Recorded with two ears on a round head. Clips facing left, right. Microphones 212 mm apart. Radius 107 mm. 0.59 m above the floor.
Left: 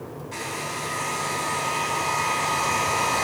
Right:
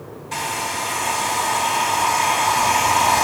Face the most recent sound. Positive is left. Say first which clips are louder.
# right 7 dB
turn(degrees=-80)